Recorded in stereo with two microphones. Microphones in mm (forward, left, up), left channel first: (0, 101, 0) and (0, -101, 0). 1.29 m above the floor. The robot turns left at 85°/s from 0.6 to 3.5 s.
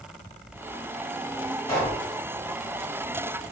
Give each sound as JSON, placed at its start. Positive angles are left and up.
{"t": 1.7, "sound": "a pop", "azimuth_deg": 25, "distance_m": 1.6}